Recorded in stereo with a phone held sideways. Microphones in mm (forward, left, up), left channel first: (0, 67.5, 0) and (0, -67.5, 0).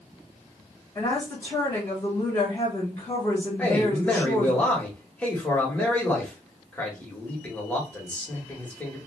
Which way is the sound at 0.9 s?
25° left (ahead or behind).